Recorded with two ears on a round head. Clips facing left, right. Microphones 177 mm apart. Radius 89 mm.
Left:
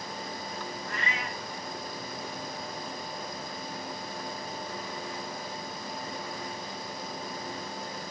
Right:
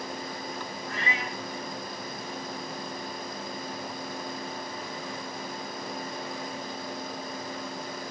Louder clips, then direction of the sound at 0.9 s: Right 2 dB; 40° left (ahead or behind).